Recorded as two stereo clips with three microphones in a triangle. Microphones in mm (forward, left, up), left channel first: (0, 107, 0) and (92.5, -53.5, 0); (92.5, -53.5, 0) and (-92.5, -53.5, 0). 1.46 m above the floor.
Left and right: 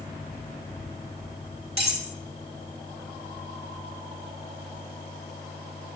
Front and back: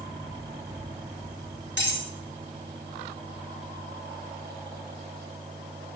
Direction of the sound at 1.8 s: 5° right.